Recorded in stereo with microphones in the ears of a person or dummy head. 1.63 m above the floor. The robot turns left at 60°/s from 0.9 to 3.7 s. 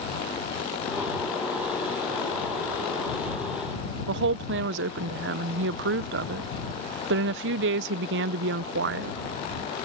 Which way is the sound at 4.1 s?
70° right (ahead or behind).